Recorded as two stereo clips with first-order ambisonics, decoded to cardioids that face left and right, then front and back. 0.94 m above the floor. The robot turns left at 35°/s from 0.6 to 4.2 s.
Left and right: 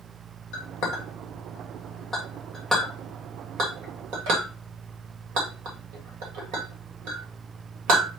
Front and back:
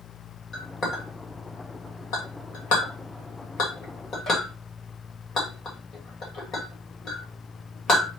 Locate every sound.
0.5 s a clink: 65° left, 2.5 m; by 8.1 s 60° right, 2.5 m